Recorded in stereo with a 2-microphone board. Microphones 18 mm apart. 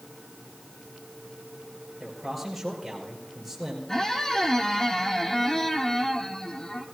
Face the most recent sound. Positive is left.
turn(degrees=20)  # may be behind; listen again after turning